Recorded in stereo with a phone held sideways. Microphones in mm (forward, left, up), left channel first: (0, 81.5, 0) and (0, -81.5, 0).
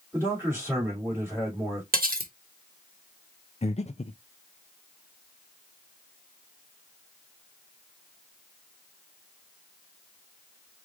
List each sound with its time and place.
0.1 s a man speaking: 15° right (ahead or behind), 3 m
1.9 s cutlery clinking: 60° right (ahead or behind), 1.1 m
3.6 s breathing: 40° left (ahead or behind), 0.6 m